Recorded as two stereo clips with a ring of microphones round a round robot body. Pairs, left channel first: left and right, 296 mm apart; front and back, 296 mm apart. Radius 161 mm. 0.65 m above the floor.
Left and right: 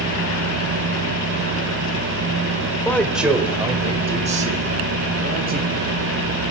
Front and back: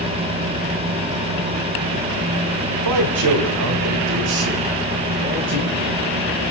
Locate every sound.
2.9 s a man speaking: 170° left, 1.7 m; by 6.4 s 145° right, 6.5 m